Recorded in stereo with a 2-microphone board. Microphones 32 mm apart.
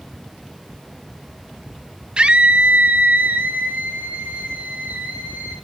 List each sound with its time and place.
2.2 s a scream: 30° right (ahead or behind), 1.2 m; by 5.5 s 65° right (ahead or behind), 4.5 m